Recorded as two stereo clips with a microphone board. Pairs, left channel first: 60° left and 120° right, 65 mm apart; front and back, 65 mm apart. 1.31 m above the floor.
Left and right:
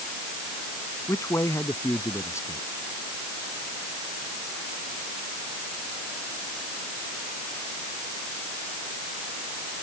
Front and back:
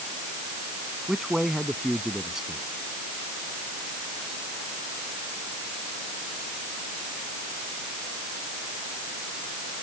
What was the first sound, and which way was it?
A man speaking, 100° left.